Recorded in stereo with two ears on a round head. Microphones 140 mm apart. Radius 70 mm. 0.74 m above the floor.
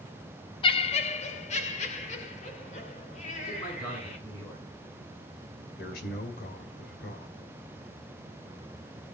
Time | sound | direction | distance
0.6 | laughter | 35° left (ahead or behind) | 0.7 m
3.5 | a man speaking | 25° left (ahead or behind) | 9 m
5.8 | a man speaking | 60° left (ahead or behind) | 2.5 m